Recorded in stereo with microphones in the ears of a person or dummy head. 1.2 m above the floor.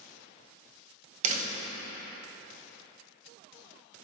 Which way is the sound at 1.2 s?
40° right (ahead or behind).